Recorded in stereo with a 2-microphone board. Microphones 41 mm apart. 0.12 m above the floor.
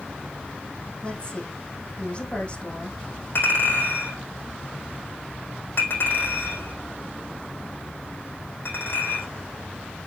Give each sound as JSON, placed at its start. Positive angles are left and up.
{"t": 1.0, "sound": "a woman speaking", "side_deg": 30, "distance_m": 4.5}
{"t": 3.4, "sound": "a clink", "side_deg": 55, "distance_m": 4.5}